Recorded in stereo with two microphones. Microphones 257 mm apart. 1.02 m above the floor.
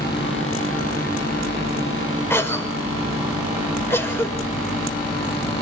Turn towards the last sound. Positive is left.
turn(degrees=10)  # may be behind; listen again after turning